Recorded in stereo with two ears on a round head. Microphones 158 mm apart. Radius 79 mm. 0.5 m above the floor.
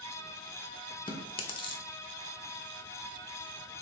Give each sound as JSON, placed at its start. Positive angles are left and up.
{"t": 1.1, "sound": "chewing", "side_deg": 30, "distance_m": 0.6}